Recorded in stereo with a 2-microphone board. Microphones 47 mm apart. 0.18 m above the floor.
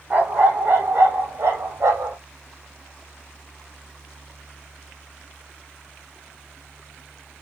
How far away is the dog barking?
About 2 m.